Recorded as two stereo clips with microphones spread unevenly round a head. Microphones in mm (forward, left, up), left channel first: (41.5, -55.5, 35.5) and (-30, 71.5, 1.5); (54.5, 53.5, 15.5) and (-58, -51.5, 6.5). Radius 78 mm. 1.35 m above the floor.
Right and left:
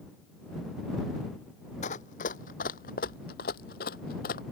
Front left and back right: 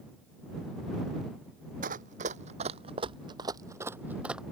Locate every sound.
1.8 s running footsteps: 95° right; by 4.4 s 50° right